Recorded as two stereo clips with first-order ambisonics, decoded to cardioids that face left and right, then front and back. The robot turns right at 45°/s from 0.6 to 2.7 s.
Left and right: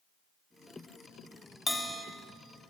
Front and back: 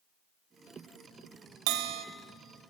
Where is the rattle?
I don't hear a rattle.